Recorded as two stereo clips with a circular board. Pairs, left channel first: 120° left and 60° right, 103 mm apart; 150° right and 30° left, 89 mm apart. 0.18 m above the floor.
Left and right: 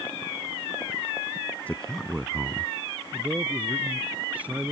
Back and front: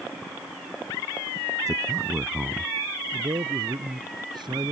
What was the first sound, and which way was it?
A man speaking, 50° left.